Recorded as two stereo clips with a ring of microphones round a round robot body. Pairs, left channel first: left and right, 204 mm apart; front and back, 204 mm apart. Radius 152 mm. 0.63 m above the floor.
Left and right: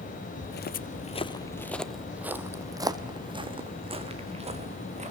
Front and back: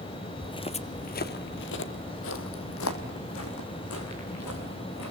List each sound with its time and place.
0.4 s footsteps: 70° left, 1.2 m; by 5.1 s 35° right, 3.5 m